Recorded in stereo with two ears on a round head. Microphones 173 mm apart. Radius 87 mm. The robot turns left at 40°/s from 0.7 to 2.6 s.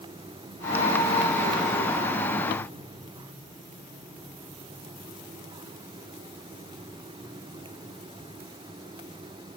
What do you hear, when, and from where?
Only background noise.